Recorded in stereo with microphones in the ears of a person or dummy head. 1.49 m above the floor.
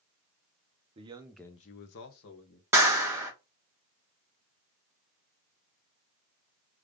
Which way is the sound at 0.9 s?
30° right (ahead or behind).